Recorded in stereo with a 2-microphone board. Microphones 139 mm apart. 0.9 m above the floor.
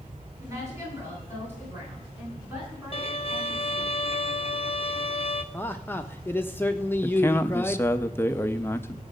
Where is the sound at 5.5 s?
15° left (ahead or behind), 0.8 m.